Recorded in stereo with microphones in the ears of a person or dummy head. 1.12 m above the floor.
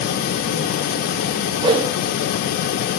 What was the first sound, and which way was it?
A whoosh, 30° right (ahead or behind).